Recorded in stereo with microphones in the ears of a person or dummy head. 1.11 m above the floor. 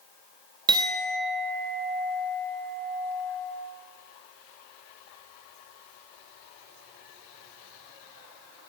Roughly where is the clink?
Right.